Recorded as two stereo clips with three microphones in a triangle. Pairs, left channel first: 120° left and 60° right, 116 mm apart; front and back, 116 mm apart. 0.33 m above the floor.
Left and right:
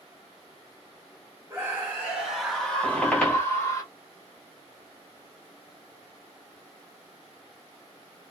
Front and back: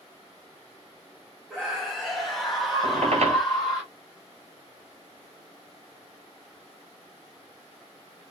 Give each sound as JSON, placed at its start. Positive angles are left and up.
{"t": 1.5, "sound": "a scream", "azimuth_deg": -95, "distance_m": 1.3}
{"t": 2.8, "sound": "a squeak", "azimuth_deg": -160, "distance_m": 1.1}